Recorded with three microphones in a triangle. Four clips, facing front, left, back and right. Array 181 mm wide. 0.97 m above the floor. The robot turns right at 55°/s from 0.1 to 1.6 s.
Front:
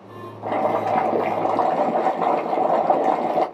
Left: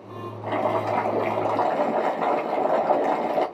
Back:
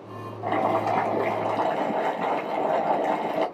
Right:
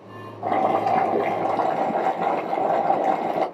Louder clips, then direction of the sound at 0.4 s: Right 4 dB, front 2 dB; 65° right.